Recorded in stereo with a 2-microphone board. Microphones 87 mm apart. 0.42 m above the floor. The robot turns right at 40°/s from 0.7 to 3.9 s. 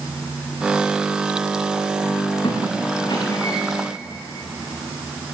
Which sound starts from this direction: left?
A squeak, at 2.4 s.